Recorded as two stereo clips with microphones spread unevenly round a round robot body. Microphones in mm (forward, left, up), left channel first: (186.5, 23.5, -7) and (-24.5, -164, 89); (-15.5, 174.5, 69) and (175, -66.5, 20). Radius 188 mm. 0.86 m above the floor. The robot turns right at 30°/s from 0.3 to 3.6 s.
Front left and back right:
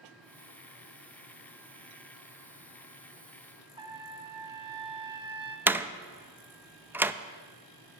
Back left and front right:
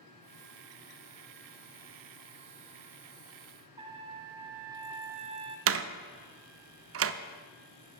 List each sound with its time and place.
3.8 s a trumpet: 130° right, 0.5 m
5.7 s a door slam: 40° right, 0.6 m